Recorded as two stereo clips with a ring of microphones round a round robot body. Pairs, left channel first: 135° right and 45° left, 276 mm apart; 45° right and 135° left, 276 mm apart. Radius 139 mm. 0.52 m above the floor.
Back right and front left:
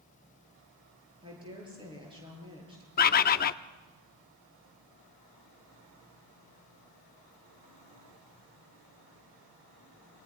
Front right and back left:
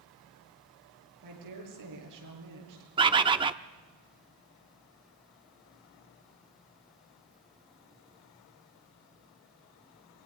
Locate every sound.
1.2 s a woman speaking: 120° left, 9.5 m
3.0 s a bird: 165° right, 0.6 m